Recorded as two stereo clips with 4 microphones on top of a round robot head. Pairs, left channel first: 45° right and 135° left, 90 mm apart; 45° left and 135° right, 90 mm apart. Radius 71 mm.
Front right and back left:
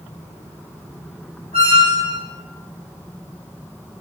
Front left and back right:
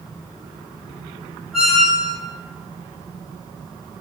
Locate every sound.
1.5 s a squeak: 140° left, 1.1 m